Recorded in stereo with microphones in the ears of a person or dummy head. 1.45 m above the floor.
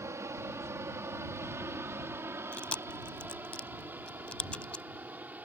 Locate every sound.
0.0 s an aircraft: 15° right (ahead or behind); by 5.5 s 10° right (ahead or behind)
2.5 s chewing: 5° left (ahead or behind)